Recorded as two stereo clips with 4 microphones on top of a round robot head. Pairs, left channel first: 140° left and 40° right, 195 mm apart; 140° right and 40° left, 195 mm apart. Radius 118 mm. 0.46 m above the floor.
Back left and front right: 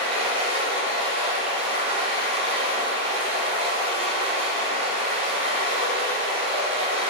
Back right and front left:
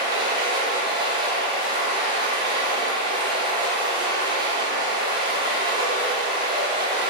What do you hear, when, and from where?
0.0 s running water: 10° right, 1.1 m